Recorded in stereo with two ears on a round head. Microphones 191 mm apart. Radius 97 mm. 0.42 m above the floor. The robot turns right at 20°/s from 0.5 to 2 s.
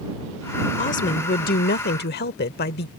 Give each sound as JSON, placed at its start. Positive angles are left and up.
{"t": 0.8, "sound": "a woman speaking", "side_deg": 35}